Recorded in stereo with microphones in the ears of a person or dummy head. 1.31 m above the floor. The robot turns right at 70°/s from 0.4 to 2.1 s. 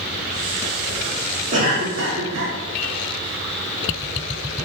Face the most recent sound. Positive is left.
turn(degrees=-105)